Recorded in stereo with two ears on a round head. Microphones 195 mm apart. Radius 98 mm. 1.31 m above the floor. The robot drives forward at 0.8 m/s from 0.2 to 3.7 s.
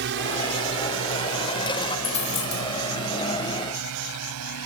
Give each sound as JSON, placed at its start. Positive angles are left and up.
{"t": 0.0, "sound": "a drone", "side_deg": -55}
{"t": 2.0, "sound": "a dropped coin", "side_deg": 30}